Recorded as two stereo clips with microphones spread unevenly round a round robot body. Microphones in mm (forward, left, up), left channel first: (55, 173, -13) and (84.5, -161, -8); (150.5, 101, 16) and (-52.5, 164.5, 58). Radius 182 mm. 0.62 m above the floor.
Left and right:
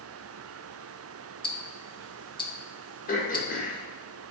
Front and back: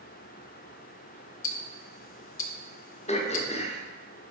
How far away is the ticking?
About 0.6 m.